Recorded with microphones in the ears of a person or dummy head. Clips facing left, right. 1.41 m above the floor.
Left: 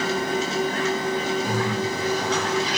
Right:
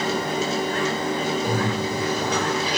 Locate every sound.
0.0 s a machine running: 70° right (ahead or behind), 3 m
1.4 s a bird: 55° right (ahead or behind), 5.5 m